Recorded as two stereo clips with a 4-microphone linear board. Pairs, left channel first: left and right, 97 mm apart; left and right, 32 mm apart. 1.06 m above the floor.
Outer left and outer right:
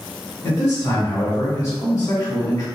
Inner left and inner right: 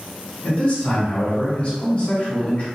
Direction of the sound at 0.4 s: 40° left (ahead or behind).